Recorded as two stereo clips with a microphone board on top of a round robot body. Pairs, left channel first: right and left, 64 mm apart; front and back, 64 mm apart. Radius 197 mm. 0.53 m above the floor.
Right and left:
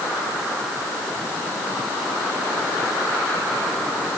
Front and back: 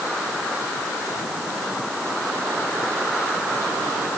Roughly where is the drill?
I don't hear a drill.